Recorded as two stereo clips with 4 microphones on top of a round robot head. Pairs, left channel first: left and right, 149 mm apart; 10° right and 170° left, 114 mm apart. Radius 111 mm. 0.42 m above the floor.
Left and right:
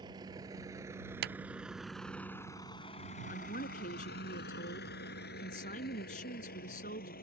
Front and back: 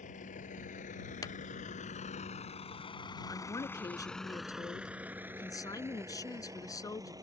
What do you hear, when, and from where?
0.0 s a vehicle: 25° right; by 7.2 s 110° left
1.2 s a clap: 80° right
3.3 s a woman speaking: 50° left